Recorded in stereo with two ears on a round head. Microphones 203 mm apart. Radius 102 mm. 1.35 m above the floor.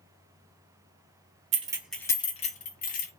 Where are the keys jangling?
30° right (ahead or behind), 0.5 m; by 3.1 s 45° left (ahead or behind), 1.1 m.